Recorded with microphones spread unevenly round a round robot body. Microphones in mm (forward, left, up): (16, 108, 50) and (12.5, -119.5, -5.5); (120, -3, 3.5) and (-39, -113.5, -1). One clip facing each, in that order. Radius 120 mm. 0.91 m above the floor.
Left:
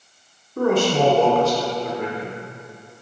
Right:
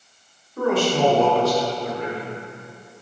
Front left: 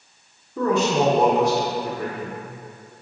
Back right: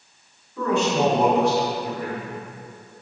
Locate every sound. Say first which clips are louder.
0.6 s a man speaking: left 2 dB, front left 1 dB; 55° left, 0.9 m